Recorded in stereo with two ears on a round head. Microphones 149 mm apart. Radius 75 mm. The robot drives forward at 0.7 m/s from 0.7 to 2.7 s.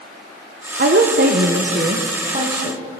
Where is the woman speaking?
55° right (ahead or behind), 0.7 m; by 2.8 s 25° right (ahead or behind), 1.3 m.